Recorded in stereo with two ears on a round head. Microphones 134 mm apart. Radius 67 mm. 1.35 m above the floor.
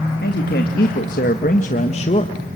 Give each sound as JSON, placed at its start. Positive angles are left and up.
{"t": 0.2, "sound": "a man speaking", "side_deg": 70, "distance_m": 1.9}